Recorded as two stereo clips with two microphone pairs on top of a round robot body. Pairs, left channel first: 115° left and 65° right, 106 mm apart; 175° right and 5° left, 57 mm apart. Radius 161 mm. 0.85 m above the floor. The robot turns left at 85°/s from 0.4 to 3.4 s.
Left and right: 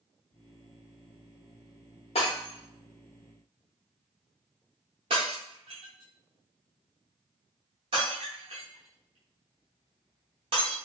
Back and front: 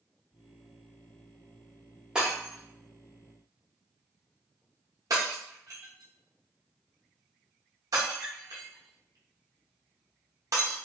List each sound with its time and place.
2.1 s breaking glass: 85° left, 0.8 m; by 10.8 s 25° right, 0.8 m